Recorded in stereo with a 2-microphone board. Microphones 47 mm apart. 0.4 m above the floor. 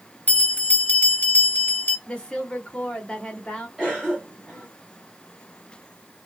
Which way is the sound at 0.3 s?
35° left (ahead or behind).